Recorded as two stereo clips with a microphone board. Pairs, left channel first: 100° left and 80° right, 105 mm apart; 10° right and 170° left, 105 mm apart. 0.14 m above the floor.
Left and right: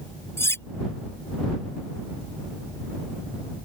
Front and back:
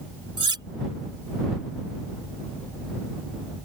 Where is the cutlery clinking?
155° left.